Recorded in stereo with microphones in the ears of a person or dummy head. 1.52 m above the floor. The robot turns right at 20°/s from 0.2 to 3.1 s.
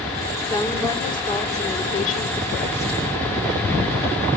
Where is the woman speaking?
15° left, 4.5 m; by 3.0 s 65° left, 4.5 m.